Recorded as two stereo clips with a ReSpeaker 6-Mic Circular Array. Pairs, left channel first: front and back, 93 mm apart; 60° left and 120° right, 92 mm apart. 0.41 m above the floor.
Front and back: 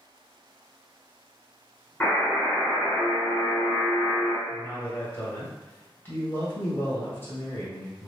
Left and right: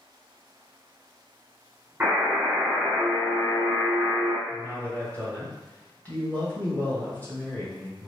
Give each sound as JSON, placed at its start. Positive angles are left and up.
{"t": 2.0, "sound": "a buzzer", "azimuth_deg": -55, "distance_m": 1.3}
{"t": 4.5, "sound": "a man speaking", "azimuth_deg": 15, "distance_m": 0.9}